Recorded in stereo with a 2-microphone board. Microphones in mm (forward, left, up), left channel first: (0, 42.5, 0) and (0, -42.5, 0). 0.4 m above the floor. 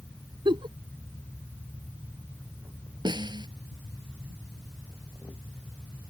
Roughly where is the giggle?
Right.